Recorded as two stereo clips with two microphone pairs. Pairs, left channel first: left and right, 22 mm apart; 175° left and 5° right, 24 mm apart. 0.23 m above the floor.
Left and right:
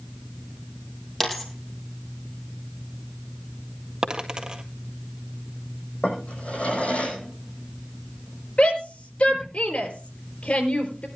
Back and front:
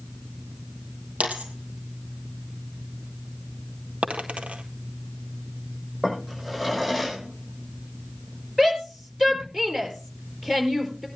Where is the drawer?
75° left, 6 m.